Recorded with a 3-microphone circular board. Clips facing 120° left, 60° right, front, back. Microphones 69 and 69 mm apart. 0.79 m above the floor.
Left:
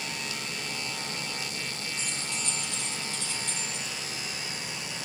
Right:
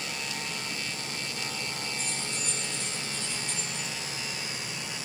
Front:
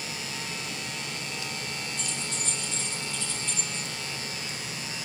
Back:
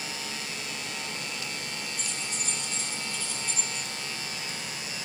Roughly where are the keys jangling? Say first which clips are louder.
Even, front 1 dB; left.